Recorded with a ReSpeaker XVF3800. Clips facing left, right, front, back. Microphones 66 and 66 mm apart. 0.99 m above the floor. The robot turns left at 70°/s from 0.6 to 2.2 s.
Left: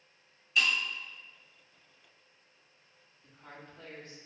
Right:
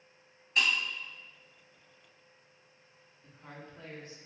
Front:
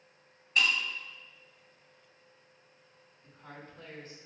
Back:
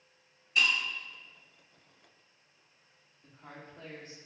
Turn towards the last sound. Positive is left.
turn(degrees=-160)